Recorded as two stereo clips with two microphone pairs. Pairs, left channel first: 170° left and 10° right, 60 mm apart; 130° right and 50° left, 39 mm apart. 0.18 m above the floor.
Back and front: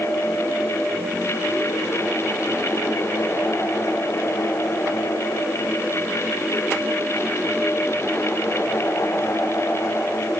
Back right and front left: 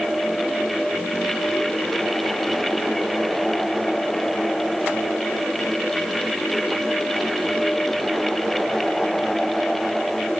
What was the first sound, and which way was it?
Only background noise.